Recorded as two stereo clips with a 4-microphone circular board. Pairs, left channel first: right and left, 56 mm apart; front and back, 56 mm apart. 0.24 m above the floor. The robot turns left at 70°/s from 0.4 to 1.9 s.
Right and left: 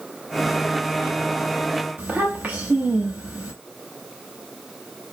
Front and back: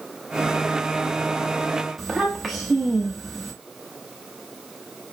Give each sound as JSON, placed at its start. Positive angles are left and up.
{"t": 2.0, "sound": "a child speaking", "azimuth_deg": 90, "distance_m": 0.7}